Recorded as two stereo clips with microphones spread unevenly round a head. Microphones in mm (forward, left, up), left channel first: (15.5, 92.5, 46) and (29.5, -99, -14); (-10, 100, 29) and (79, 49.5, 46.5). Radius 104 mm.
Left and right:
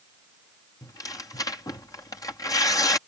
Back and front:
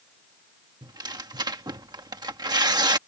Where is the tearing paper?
20° left.